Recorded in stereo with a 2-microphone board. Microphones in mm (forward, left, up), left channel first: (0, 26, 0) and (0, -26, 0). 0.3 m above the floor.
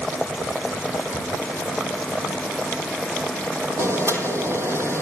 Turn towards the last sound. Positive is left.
turn(degrees=-60)  # may be behind; listen again after turning